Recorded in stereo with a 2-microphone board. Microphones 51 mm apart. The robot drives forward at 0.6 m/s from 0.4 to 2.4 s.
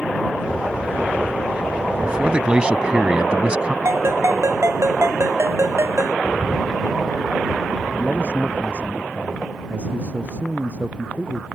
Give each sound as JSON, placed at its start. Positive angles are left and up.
{"t": 2.0, "sound": "a man speaking", "side_deg": -20}
{"t": 3.9, "sound": "a ringtone", "side_deg": -65}
{"t": 6.2, "sound": "a bird", "side_deg": -10}
{"t": 7.9, "sound": "a man speaking", "side_deg": -30}